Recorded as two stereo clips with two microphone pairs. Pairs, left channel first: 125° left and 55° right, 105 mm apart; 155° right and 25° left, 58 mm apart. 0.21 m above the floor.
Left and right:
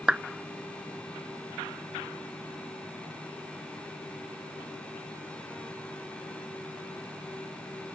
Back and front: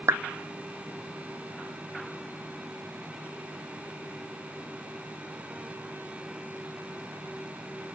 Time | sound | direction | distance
0.1 | a clap | 25° left | ?